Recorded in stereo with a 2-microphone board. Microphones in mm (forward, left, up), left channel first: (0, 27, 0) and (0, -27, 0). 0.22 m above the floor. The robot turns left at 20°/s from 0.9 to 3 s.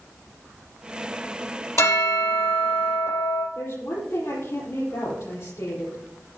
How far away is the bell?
About 4.5 m.